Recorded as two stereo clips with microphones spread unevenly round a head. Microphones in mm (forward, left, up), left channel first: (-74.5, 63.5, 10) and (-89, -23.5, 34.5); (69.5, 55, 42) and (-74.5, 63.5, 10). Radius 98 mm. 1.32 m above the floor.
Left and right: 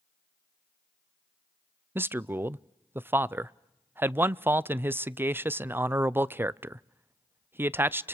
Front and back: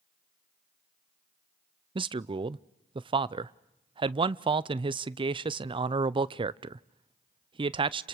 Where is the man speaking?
175° right, 0.5 m.